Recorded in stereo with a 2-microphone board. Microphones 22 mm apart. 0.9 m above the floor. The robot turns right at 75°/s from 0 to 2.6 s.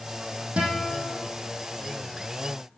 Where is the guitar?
110° right, 6 m; by 1.2 s 60° right, 6 m.